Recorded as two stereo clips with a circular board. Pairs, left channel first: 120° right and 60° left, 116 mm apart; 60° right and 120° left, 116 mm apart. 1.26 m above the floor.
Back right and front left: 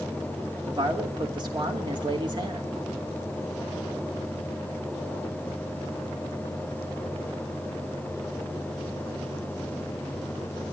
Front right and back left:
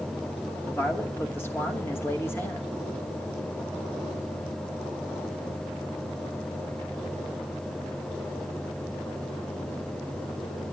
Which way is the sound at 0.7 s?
10° left.